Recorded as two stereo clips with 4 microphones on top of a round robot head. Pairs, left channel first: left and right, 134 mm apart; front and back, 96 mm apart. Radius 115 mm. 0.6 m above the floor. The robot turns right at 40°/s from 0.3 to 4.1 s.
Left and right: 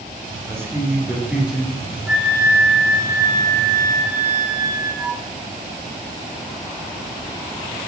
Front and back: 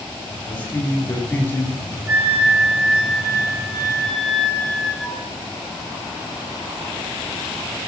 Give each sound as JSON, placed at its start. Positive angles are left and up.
{"t": 0.5, "sound": "a man speaking", "azimuth_deg": -50, "distance_m": 0.6}
{"t": 2.1, "sound": "a flute", "azimuth_deg": -165, "distance_m": 0.6}